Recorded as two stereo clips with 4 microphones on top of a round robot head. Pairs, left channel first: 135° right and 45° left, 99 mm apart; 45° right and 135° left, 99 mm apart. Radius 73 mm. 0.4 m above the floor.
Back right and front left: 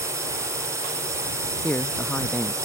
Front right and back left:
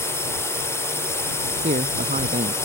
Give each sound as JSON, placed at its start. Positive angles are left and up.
{"t": 0.0, "sound": "a drone", "azimuth_deg": 5}
{"t": 1.6, "sound": "a man speaking", "azimuth_deg": 150}